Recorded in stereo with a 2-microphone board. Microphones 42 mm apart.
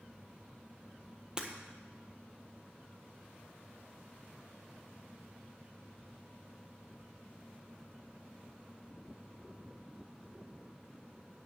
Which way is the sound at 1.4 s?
20° right (ahead or behind).